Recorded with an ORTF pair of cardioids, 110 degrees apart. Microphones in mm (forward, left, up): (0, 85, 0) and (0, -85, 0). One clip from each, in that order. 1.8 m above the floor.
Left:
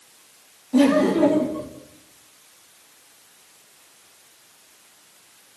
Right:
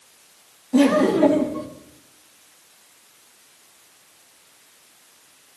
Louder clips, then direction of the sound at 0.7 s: Right 1 dB; 15° right.